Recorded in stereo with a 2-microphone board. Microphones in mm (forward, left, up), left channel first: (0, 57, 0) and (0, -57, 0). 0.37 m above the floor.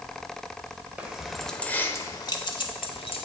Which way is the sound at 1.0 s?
10° right (ahead or behind).